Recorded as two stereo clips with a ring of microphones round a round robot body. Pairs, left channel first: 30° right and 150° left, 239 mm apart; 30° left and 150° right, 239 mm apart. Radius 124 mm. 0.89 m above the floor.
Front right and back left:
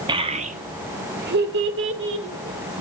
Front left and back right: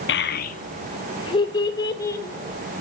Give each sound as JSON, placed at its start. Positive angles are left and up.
{"t": 0.1, "sound": "a child speaking", "azimuth_deg": 75, "distance_m": 0.9}